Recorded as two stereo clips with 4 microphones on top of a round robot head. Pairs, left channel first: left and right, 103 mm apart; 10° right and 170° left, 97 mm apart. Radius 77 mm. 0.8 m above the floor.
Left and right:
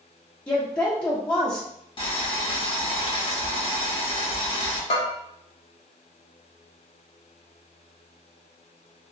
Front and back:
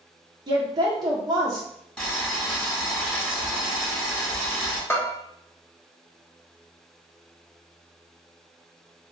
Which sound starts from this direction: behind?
A woman speaking, at 0.5 s.